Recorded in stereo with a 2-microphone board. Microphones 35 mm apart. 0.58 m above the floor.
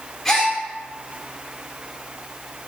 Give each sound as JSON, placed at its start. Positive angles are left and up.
{"t": 0.2, "sound": "a gasp", "side_deg": 5, "distance_m": 1.3}